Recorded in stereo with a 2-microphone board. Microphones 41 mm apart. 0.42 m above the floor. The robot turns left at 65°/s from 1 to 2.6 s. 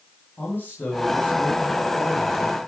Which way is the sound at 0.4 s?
125° left.